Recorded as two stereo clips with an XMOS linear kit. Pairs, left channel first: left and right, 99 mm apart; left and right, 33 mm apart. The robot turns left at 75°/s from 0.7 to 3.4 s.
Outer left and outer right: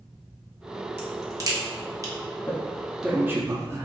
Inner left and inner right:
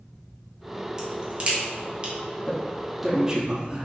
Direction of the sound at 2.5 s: 25° left (ahead or behind).